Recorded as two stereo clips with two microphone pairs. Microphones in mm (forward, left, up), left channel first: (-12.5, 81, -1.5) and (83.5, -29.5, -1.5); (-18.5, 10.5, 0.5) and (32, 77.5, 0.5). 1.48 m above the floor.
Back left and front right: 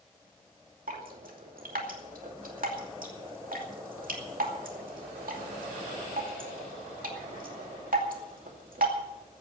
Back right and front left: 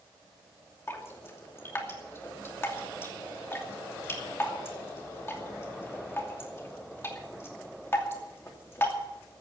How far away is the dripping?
About 2.5 m.